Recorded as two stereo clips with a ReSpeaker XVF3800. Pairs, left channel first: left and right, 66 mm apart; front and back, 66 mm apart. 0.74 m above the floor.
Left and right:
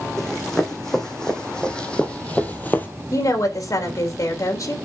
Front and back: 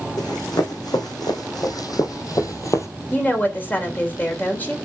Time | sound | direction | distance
0.2 | running footsteps | 5° left | 3.5 m
3.1 | a woman speaking | 60° left | 3 m